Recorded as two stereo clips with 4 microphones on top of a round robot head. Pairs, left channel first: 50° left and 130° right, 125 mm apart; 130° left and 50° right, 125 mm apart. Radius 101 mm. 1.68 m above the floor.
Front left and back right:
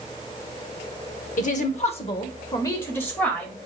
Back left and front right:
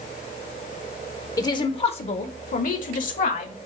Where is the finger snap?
I don't hear a finger snap.